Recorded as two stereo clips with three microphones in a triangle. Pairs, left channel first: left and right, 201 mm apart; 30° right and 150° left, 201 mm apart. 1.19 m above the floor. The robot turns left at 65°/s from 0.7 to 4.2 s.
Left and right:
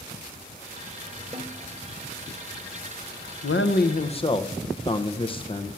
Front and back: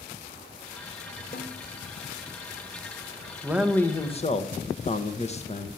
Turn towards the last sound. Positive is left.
turn(degrees=25)